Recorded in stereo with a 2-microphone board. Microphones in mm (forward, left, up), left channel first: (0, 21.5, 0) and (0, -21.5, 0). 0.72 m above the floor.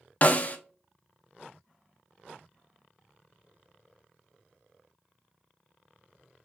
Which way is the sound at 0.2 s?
40° left (ahead or behind).